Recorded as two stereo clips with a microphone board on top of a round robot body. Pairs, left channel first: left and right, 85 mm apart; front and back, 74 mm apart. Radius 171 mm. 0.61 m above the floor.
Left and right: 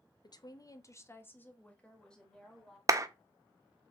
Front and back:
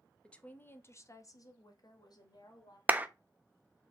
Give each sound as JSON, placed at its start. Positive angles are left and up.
{"t": 0.2, "sound": "a woman speaking", "azimuth_deg": 75, "distance_m": 0.8}
{"t": 2.9, "sound": "a clap", "azimuth_deg": -120, "distance_m": 0.7}